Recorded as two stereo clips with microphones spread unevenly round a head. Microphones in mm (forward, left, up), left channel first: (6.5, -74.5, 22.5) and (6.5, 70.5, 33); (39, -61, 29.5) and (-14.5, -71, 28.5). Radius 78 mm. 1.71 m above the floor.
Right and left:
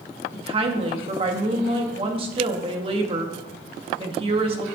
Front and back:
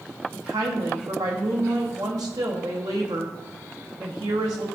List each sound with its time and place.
0.3 s a woman speaking: 145° left, 1.1 m